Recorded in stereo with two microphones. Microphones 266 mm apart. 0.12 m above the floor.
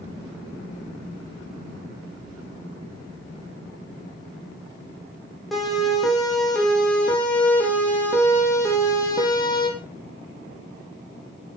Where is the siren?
Centre (ahead or behind), 9.5 m; by 9.7 s 15° left (ahead or behind), 5.5 m.